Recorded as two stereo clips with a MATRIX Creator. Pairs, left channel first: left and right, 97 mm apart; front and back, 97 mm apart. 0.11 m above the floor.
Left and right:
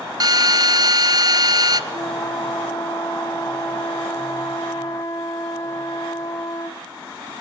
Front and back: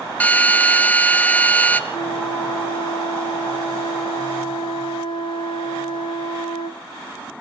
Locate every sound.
0.2 s a drill: 70° right, 0.8 m
1.9 s a flute: 35° left, 2 m